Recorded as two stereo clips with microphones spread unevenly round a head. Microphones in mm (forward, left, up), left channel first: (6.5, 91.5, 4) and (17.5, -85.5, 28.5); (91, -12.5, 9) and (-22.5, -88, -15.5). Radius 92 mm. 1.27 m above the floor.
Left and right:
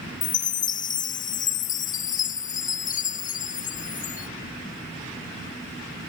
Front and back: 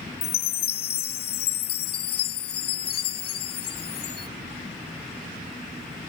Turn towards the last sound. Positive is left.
turn(degrees=50)